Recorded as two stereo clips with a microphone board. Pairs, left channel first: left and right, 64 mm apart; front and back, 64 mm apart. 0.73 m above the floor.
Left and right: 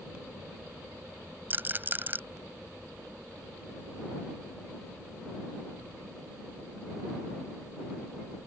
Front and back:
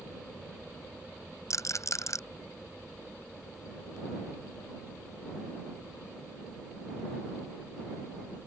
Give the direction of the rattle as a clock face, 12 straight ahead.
1 o'clock.